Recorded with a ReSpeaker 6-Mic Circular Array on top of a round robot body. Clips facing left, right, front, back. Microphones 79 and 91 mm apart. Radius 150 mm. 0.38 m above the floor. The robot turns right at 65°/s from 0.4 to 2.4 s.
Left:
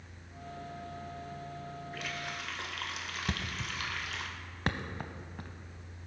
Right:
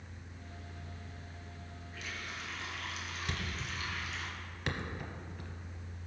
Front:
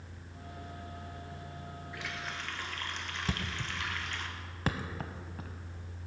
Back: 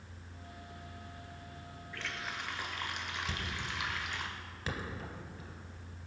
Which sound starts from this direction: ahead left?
A thud, at 3.3 s.